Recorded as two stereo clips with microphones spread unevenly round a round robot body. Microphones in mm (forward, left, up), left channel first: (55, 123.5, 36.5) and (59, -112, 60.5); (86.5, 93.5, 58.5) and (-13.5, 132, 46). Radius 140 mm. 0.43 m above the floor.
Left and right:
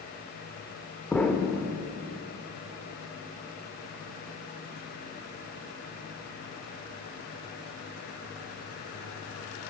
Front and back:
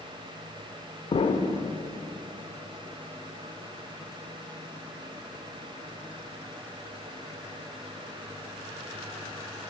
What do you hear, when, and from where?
1.1 s an explosion: 10° left, 0.6 m